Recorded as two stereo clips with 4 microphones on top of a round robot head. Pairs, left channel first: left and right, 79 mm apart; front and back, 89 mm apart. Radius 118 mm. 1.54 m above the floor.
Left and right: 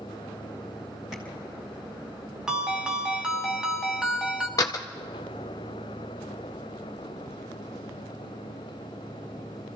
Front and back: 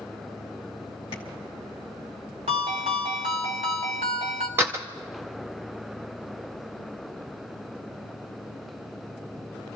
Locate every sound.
1.1 s tapping: straight ahead, 1.2 m
2.5 s a ringtone: 170° right, 1.2 m
4.6 s a door slam: 125° left, 0.6 m